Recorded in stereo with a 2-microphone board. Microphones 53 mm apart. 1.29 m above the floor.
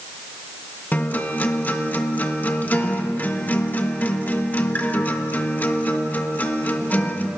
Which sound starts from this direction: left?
A guitar, at 0.9 s.